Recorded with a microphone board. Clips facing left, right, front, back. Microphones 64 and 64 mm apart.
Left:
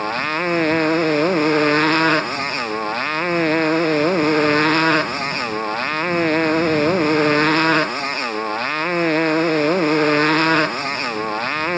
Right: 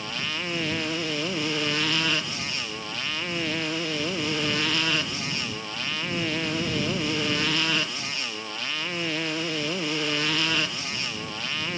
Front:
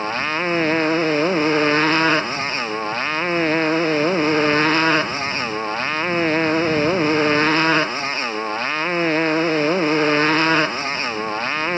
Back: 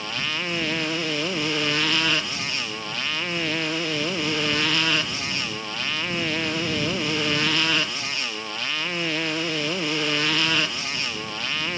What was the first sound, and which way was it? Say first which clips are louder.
A motorcycle: left 11 dB, front 7 dB; 55° left.